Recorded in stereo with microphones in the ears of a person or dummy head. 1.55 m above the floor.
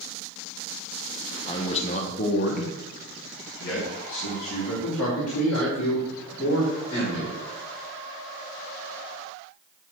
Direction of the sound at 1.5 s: 30° left (ahead or behind).